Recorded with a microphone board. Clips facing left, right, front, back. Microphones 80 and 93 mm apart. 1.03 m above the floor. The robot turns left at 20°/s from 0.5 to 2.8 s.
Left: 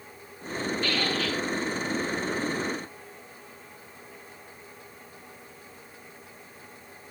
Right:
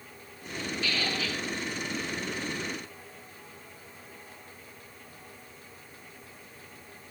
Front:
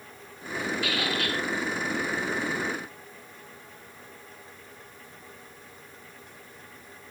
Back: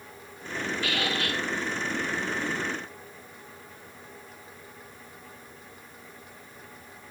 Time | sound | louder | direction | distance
0.8 | a squeak | left 2 dB, back 1 dB | 130° left | 7 m